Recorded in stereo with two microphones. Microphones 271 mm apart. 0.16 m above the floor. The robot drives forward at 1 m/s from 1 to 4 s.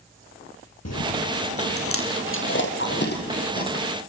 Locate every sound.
0.8 s chewing: 70° left (ahead or behind), 2.5 m; by 3.8 s 35° left (ahead or behind), 4 m